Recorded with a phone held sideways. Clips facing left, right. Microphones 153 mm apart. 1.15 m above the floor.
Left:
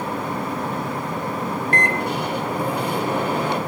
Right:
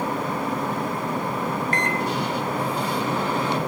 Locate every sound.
1.7 s a microwave: 60° left (ahead or behind), 3 m